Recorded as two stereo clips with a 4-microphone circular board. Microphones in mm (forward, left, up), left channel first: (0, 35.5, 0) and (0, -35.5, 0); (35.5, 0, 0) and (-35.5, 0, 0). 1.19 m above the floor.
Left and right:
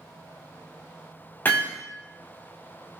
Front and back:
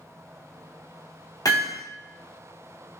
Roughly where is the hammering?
Ahead left.